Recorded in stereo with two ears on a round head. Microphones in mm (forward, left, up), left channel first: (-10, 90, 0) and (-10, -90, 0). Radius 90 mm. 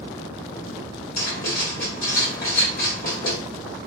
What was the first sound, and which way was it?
Writing, 50° left (ahead or behind).